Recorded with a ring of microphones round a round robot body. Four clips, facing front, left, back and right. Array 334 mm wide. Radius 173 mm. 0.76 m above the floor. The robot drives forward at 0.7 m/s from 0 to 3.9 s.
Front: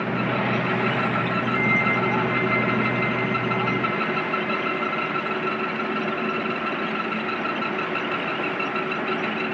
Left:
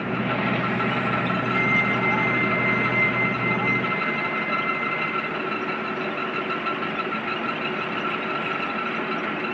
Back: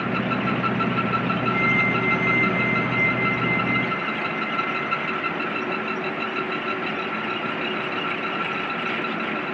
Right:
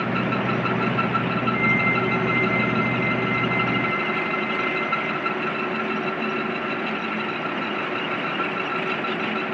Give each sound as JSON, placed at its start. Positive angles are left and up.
{"t": 1.5, "sound": "a flute", "azimuth_deg": 155, "distance_m": 1.9}